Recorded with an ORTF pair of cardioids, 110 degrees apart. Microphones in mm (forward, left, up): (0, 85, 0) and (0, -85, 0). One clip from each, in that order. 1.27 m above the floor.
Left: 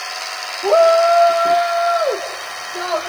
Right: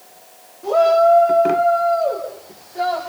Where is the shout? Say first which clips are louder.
Left 2 dB; 40° left, 2.5 m; by 3.1 s 60° left, 5.5 m.